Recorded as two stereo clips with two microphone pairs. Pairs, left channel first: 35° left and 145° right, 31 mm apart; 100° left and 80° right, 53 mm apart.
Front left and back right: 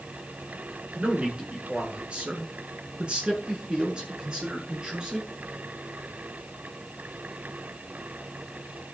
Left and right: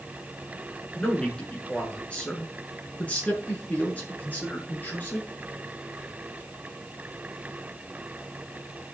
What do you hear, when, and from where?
0.9 s a man speaking: 170° left, 7 m; by 5.3 s 155° left, 8 m